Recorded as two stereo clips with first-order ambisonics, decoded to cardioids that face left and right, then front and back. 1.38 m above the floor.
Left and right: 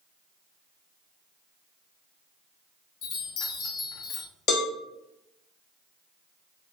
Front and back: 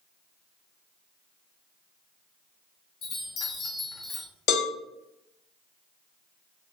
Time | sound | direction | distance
3.0 | a chime | 55° left | 0.7 m
4.5 | a cowbell | 40° left | 0.7 m